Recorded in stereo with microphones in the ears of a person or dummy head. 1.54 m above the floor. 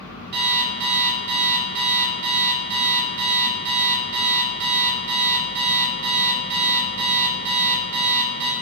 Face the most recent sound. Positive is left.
turn(degrees=-55)  # may be behind; listen again after turning